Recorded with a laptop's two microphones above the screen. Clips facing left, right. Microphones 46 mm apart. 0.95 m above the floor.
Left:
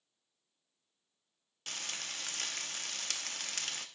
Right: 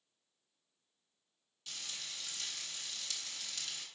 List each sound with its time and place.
1.7 s frying: 60° left (ahead or behind), 0.5 m